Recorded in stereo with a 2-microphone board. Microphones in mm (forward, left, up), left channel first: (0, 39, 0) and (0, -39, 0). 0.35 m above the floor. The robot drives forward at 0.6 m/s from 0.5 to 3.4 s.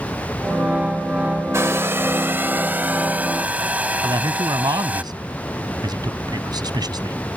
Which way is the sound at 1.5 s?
35° right (ahead or behind).